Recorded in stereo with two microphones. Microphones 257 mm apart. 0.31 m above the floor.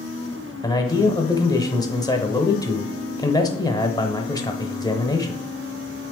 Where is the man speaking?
15° left (ahead or behind), 0.8 m.